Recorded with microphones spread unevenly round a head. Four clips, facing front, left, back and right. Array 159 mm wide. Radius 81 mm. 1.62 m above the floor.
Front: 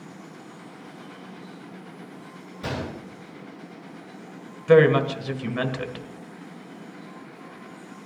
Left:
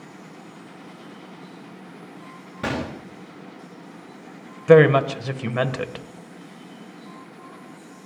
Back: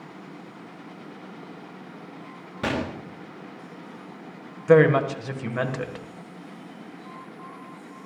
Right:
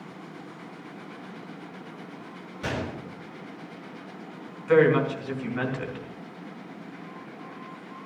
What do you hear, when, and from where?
2.6 s a gunshot: 130° left, 1.6 m
4.7 s a woman speaking: 95° left, 1.7 m